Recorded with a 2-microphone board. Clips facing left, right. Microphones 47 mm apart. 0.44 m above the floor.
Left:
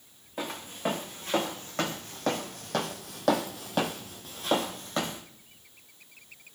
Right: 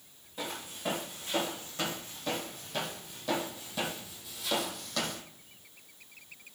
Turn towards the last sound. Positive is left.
turn(degrees=20)  # may be behind; listen again after turning